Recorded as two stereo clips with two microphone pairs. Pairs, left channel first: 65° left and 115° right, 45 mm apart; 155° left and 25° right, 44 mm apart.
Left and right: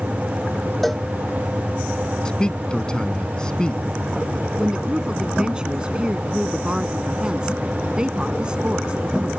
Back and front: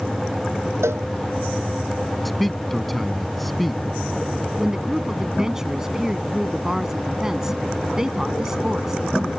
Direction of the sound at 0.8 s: 20° right.